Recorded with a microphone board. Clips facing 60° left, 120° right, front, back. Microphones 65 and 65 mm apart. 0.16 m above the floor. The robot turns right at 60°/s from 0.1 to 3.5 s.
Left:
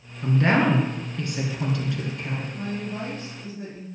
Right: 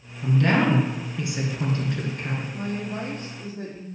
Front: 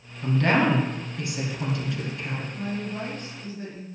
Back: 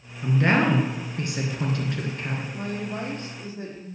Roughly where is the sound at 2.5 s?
Behind.